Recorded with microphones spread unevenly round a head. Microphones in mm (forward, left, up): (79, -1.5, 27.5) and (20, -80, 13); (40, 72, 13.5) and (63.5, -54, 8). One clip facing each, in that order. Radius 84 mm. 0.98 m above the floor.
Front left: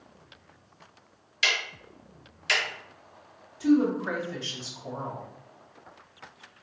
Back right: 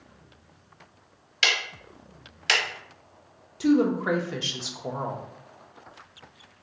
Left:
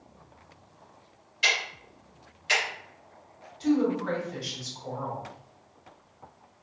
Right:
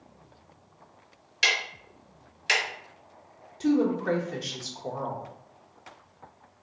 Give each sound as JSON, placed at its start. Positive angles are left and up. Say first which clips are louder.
{"t": 1.4, "sound": "ticking", "louder": "back right 2 dB, even", "azimuth_deg": -100, "distance_m": 1.0}
{"t": 3.6, "sound": "a woman speaking", "louder": "back right 1 dB, right 1 dB", "azimuth_deg": -130, "distance_m": 0.6}